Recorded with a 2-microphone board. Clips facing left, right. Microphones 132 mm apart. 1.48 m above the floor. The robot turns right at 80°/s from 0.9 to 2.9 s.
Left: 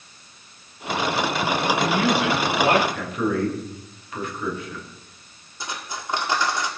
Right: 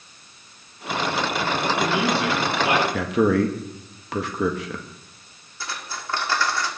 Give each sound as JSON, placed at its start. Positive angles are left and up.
{"t": 1.6, "sound": "a man speaking", "azimuth_deg": -45, "distance_m": 3.0}
{"t": 2.9, "sound": "a man speaking", "side_deg": -75, "distance_m": 1.7}
{"t": 5.6, "sound": "cutlery clinking", "side_deg": 20, "distance_m": 1.8}